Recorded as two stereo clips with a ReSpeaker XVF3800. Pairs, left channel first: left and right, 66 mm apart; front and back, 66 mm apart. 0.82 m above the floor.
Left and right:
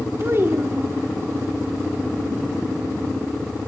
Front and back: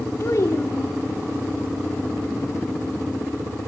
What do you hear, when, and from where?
0.2 s a child speaking: 40° right, 1.4 m